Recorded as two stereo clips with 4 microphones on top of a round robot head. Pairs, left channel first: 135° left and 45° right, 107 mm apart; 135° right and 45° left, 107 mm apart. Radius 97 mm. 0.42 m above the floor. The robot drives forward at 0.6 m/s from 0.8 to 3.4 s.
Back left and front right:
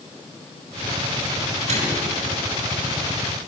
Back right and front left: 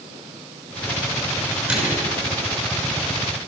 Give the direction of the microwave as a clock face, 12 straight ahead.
1 o'clock.